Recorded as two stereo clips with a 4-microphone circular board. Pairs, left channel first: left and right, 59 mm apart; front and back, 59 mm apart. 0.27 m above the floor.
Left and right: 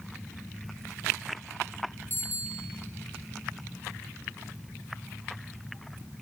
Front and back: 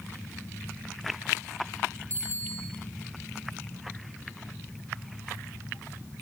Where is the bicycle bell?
140° left, 8.5 m.